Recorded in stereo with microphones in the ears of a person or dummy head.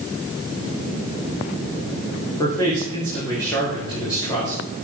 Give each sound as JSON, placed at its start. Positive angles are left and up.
{"t": 2.4, "sound": "a man speaking", "side_deg": 20, "distance_m": 3.0}